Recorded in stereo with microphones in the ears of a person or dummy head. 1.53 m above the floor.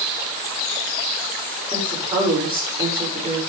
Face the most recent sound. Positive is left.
turn(degrees=-25)  # may be behind; listen again after turning